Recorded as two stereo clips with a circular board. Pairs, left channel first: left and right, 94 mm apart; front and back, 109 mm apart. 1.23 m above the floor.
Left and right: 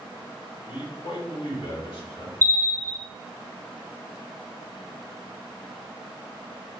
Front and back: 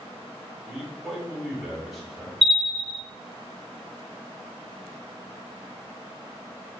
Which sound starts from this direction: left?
A man speaking, at 0.7 s.